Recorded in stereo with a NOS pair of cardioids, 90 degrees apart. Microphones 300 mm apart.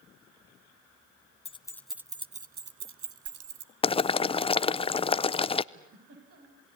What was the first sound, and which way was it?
Keys jangling, 20° left.